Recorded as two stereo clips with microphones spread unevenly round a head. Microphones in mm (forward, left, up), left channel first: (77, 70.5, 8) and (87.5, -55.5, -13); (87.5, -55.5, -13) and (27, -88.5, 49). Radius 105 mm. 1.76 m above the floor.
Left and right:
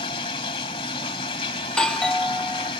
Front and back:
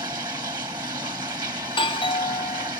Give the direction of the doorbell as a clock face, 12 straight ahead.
12 o'clock.